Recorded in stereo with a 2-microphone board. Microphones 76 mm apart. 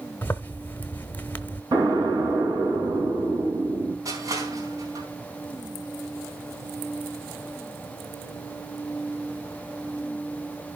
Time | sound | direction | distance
0.2 | a zipper | 25° left (ahead or behind) | 1.0 m
1.7 | an explosion | 70° right (ahead or behind) | 4.5 m
4.0 | crushing | 50° right (ahead or behind) | 4 m